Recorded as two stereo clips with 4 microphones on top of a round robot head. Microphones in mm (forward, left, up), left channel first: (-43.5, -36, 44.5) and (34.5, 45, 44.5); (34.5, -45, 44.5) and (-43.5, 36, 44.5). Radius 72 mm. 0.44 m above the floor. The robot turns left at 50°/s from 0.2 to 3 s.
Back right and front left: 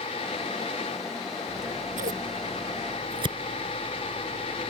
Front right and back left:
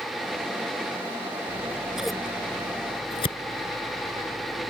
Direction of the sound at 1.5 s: 75° left.